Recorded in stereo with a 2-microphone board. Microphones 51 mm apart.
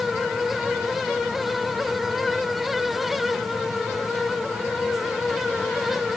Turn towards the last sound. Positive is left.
No sound to turn to.